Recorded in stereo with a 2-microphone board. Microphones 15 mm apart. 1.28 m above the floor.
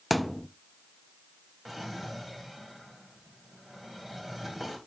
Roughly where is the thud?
Centre.